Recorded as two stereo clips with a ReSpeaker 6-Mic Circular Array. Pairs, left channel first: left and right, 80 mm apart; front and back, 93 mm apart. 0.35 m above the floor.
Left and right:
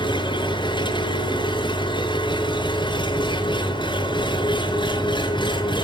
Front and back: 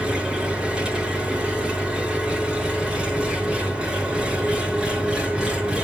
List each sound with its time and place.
0.0 s an engine running: 100° left, 5.5 m